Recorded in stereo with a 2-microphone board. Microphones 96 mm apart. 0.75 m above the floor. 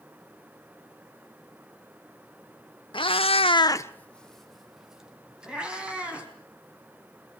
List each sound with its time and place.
2.9 s a cat meowing: 60° left (ahead or behind), 0.9 m; by 6.3 s 10° right (ahead or behind), 4 m